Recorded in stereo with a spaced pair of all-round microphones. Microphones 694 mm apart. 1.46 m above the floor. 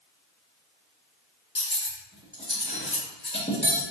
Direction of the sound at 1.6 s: 15° left (ahead or behind).